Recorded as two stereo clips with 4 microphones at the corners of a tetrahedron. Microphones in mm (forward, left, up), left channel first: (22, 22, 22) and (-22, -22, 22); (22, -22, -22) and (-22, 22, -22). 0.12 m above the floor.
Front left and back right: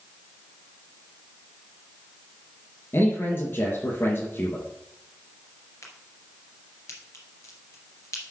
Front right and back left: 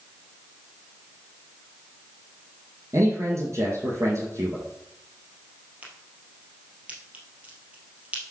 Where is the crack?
70° left, 3 m.